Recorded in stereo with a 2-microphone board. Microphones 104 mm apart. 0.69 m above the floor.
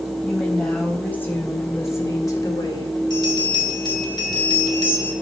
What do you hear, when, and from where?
0.2 s a woman speaking: 10° left (ahead or behind), 5 m; by 3.0 s 50° left (ahead or behind), 3 m
3.1 s a bell: 40° left (ahead or behind), 3 m